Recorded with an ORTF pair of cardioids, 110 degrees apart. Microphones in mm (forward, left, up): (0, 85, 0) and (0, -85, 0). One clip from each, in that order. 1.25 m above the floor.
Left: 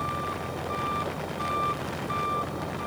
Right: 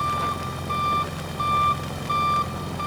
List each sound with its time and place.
0.0 s an engine running: 40° right